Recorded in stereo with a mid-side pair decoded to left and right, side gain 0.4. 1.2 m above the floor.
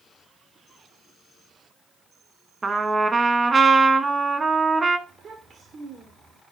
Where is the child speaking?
55° right, 3 m.